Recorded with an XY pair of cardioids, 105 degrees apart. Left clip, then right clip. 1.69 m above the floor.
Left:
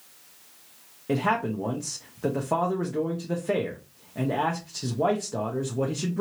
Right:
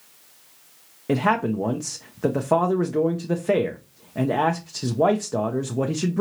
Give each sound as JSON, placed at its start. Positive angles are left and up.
{"t": 1.1, "sound": "a man speaking", "azimuth_deg": -35, "distance_m": 0.6}